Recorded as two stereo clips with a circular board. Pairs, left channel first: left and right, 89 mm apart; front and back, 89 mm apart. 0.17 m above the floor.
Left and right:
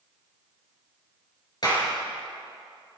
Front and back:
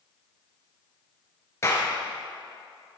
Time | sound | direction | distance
1.6 | a clap | 55° left | 3 m